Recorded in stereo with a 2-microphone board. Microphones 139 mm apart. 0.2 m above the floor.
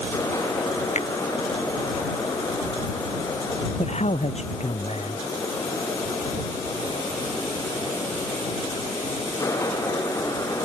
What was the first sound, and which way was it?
A finger snap, 55° left (ahead or behind).